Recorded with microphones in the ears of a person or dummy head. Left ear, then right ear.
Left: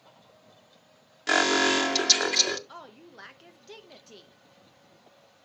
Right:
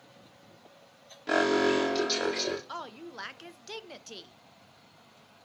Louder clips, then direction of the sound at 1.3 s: Left 3 dB; 45° left (ahead or behind).